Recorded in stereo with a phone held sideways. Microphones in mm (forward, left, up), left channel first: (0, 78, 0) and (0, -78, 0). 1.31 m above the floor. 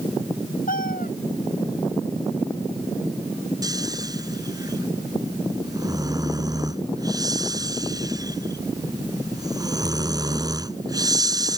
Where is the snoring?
25° right (ahead or behind).